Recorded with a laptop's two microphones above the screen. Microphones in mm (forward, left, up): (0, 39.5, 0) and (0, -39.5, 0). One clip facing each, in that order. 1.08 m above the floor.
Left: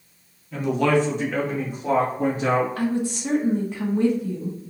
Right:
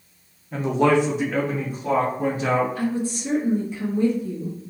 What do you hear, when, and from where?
0.5 s a man speaking: 40° right (ahead or behind), 0.8 m; by 2.7 s 30° left (ahead or behind), 1.6 m
2.8 s a woman speaking: 75° left (ahead or behind), 1.1 m